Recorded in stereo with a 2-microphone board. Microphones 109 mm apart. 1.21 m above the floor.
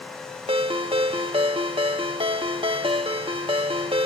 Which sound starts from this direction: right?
A ringtone, at 0.5 s.